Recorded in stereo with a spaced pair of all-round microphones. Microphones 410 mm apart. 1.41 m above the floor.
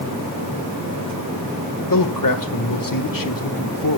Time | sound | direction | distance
1.9 | a man speaking | 55° left (ahead or behind) | 1.4 m